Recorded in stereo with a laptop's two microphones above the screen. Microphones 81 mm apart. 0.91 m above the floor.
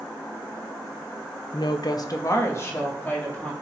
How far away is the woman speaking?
About 0.6 m.